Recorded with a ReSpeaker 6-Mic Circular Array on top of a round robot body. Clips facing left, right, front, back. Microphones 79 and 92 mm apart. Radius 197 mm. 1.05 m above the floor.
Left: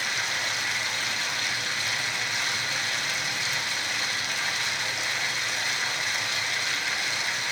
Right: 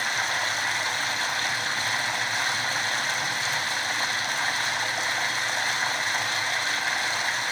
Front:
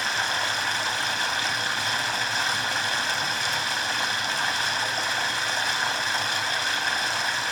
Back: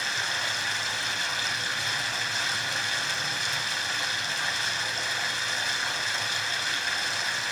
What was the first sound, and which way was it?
Running water, 35° right.